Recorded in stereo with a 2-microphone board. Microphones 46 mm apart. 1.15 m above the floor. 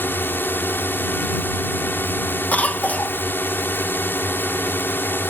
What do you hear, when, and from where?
0.0 s a drone: 50° left (ahead or behind)
2.5 s a cough: 35° left (ahead or behind)